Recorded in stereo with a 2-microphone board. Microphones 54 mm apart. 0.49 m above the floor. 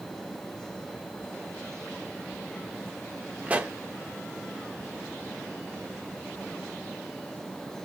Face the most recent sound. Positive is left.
turn(degrees=-25)  # may be behind; listen again after turning